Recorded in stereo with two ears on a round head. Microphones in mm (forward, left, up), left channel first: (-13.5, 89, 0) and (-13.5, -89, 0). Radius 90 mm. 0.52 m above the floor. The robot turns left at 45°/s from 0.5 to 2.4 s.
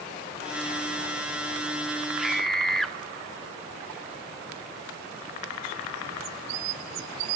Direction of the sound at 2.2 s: Centre (ahead or behind).